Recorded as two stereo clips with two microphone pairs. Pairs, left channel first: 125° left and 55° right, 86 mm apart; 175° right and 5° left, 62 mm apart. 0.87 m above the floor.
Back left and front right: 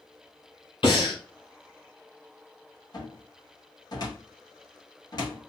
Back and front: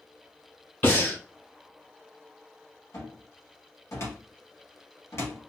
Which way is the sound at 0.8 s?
130° left.